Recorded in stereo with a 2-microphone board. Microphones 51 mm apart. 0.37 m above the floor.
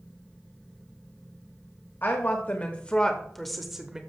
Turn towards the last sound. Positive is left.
turn(degrees=-15)  # may be behind; listen again after turning